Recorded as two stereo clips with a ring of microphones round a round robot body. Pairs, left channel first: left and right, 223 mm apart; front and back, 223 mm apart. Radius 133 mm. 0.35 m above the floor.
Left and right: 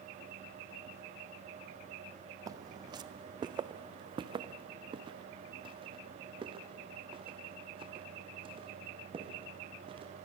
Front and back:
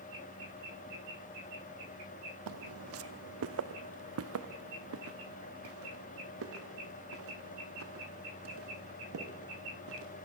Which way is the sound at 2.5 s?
165° right.